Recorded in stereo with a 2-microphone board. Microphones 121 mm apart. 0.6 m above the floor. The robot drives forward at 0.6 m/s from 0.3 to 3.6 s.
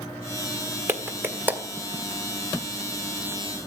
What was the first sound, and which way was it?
A clap, 20° right (ahead or behind).